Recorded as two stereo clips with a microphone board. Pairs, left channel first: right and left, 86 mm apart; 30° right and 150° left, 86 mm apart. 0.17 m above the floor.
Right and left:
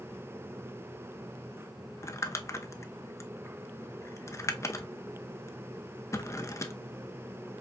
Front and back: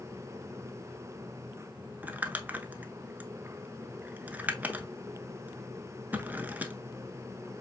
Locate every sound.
2.0 s crumpling: 140° right, 0.5 m